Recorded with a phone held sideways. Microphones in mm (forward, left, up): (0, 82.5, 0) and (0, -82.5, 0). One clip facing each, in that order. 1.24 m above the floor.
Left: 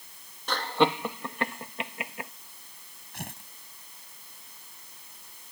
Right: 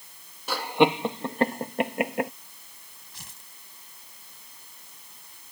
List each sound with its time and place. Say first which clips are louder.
0.5 s laughter: right 3 dB; 10° right (ahead or behind); by 2.3 s 75° right (ahead or behind)
3.1 s tearing paper: left 12 dB; 65° left (ahead or behind)